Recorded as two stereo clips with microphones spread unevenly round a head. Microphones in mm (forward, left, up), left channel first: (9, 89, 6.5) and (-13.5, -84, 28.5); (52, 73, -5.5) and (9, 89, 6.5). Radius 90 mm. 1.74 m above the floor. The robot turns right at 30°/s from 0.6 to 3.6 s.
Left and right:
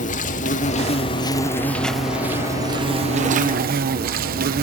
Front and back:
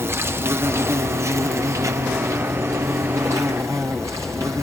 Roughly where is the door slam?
No door slam in this recording.